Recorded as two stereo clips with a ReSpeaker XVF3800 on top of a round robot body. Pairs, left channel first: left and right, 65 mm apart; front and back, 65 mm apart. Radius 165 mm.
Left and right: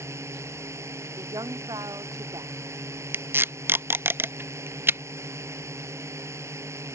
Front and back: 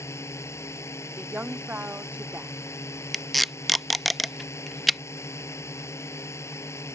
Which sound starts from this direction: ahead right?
A drone, at 0.0 s.